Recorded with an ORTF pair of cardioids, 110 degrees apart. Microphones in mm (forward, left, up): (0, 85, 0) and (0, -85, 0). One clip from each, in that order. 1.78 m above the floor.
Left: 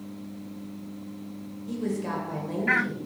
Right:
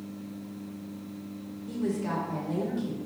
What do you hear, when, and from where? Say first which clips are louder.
1.7 s a woman speaking: left 1 dB; 10° left, 1.6 m